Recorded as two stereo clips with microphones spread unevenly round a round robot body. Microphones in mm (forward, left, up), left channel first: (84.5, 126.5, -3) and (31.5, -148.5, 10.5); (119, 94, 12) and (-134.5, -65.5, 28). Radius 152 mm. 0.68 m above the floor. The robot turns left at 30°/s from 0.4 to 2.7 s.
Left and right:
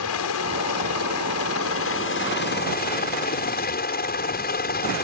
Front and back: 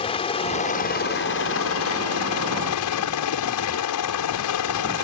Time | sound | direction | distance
0.0 | a helicopter | 100° left | ?